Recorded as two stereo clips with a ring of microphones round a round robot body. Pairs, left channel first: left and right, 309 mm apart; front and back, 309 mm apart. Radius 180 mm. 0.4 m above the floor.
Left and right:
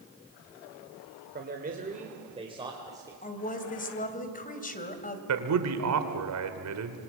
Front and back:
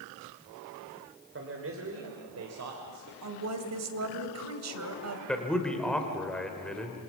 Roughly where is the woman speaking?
Behind left.